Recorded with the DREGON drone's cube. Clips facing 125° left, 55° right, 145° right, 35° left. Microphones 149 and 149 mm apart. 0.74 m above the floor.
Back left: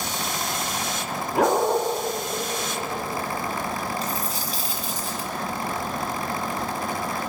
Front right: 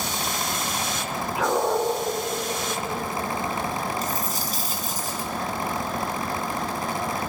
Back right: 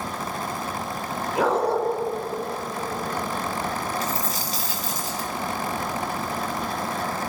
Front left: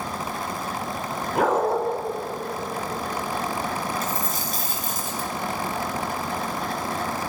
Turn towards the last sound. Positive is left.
turn(degrees=-5)